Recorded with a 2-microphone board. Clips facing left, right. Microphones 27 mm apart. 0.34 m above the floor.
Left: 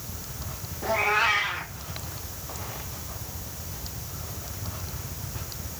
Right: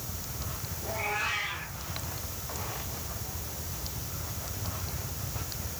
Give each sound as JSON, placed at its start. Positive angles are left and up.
{"t": 0.8, "sound": "a cat meowing", "side_deg": 85, "distance_m": 6.0}